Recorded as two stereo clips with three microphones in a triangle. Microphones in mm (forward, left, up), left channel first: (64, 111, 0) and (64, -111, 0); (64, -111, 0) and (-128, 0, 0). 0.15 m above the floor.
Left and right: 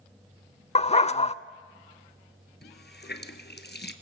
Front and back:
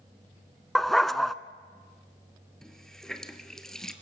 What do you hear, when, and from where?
0.8 s a dog barking: 60° left, 0.6 m
2.6 s a running tap: 55° left, 1.5 m